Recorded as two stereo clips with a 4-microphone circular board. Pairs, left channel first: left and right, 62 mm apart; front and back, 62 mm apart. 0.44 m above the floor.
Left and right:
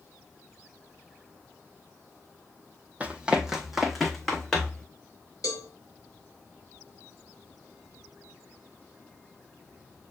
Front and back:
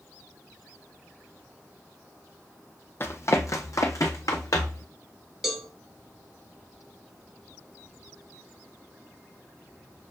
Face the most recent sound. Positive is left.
turn(degrees=95)